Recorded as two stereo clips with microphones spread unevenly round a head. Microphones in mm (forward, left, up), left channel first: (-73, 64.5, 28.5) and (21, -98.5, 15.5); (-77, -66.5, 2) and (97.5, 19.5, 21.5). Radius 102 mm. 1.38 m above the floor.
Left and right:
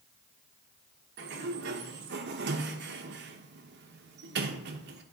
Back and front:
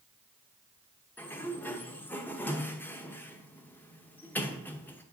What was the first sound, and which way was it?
A sliding door, 70° right.